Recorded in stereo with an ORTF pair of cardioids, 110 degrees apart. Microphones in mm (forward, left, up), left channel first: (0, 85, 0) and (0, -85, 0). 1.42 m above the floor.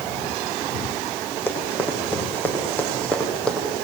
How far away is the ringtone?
I don't hear a ringtone.